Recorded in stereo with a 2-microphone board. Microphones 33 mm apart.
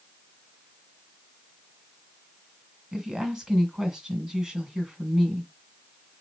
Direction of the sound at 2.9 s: 15° right (ahead or behind).